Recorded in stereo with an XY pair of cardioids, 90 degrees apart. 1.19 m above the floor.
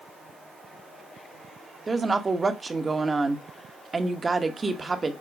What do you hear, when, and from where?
1.9 s a woman speaking: 30° right, 1.3 m